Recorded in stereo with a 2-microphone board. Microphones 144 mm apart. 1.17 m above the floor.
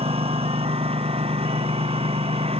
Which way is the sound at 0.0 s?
45° right (ahead or behind).